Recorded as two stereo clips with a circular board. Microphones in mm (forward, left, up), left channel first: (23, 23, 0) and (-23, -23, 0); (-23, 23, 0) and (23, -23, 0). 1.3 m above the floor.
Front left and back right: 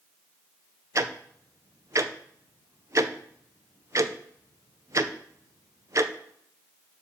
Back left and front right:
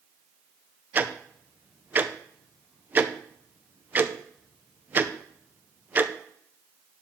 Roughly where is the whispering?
I don't hear whispering.